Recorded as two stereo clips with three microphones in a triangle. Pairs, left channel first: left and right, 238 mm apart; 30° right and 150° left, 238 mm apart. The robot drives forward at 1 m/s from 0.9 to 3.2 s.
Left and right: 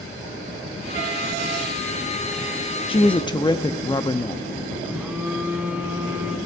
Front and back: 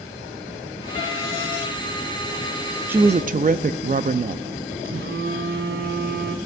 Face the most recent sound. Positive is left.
turn(degrees=-175)